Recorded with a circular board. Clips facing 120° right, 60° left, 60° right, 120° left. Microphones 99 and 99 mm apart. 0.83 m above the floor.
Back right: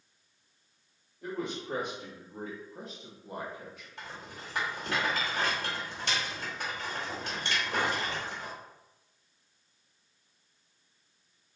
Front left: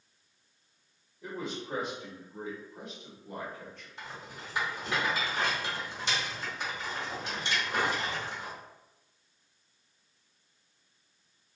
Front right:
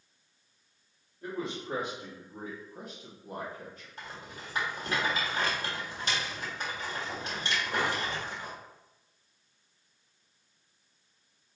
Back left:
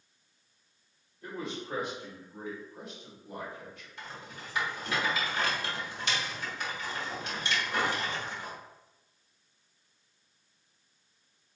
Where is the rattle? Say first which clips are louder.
Even, even; 105° right, 1.6 m.